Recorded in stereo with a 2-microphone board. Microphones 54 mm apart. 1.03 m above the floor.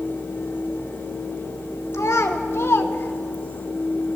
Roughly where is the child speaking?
Left.